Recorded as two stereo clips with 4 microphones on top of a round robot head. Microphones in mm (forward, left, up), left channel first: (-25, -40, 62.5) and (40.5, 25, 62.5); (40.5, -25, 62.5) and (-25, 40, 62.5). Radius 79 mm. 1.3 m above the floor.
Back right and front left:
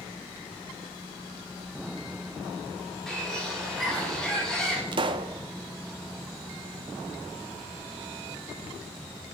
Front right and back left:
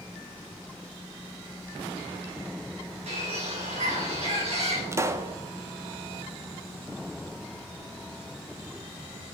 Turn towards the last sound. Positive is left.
turn(degrees=75)